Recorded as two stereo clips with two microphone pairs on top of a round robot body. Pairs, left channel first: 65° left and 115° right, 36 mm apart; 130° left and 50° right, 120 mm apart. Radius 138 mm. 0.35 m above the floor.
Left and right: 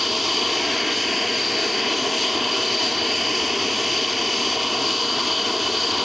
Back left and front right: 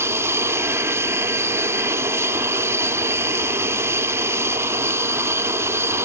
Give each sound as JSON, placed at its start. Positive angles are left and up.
{"t": 0.0, "sound": "an aircraft", "azimuth_deg": -35}